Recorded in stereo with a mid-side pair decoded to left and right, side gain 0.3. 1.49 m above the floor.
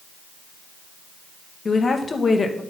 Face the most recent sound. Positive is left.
turn(degrees=50)